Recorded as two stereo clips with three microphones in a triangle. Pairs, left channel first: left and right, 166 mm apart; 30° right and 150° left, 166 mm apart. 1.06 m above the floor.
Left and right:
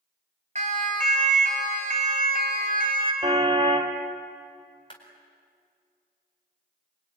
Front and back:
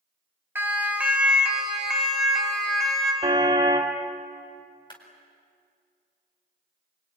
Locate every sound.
0.6 s a siren: 135° right, 3 m; by 3.1 s 115° right, 4.5 m
3.2 s a car horn: 150° right, 2.5 m
4.9 s a clap: 30° left, 4 m